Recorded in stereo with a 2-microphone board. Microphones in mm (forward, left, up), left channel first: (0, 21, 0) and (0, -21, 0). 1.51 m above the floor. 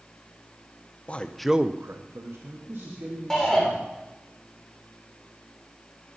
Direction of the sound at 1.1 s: 30° left (ahead or behind).